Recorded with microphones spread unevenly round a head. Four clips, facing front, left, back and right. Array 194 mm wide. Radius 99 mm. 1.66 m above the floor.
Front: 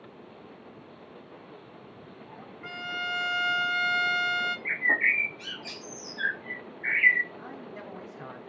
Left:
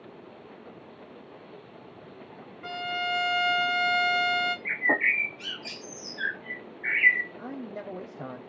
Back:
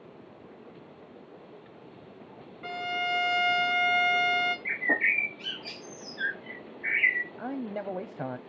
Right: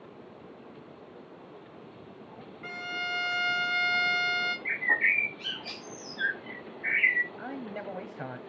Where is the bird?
115° left, 0.8 m.